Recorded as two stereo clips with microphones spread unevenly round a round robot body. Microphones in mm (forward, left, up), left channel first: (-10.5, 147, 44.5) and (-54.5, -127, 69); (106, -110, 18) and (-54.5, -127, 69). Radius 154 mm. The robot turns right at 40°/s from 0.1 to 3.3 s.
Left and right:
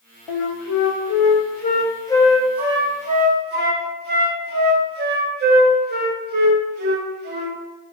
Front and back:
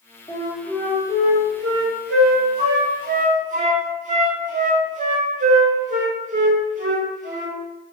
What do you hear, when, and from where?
0.3 s a flute: 90° left, 0.6 m; by 7.6 s 150° right, 0.6 m